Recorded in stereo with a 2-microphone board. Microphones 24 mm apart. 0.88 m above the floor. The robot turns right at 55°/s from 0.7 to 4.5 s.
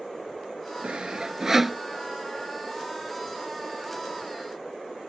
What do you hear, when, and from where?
0.8 s sawing: 55° right (ahead or behind); by 1.8 s centre (ahead or behind)